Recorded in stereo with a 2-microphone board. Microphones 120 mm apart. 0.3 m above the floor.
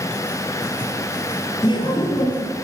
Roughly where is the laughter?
Left.